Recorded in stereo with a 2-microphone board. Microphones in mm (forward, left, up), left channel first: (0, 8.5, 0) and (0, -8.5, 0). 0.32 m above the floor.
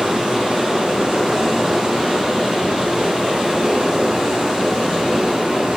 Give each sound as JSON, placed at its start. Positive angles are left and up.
{"t": 0.0, "sound": "running water", "side_deg": -70, "distance_m": 3.5}